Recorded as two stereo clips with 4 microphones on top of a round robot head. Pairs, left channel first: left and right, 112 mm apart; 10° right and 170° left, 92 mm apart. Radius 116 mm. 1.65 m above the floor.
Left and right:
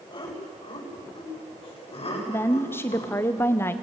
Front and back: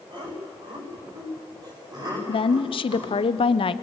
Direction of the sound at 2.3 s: 15° left.